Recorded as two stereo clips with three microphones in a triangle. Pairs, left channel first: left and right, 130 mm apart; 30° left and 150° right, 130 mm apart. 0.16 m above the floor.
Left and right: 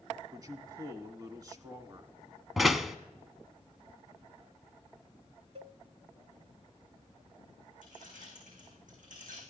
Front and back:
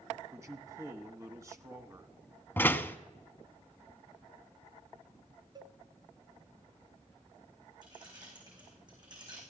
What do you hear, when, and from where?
0.3 s a man speaking: 115° right, 1.1 m
2.6 s a door slam: straight ahead, 0.8 m
5.5 s a cowbell: 105° right, 0.6 m
7.8 s keys jangling: 95° right, 7 m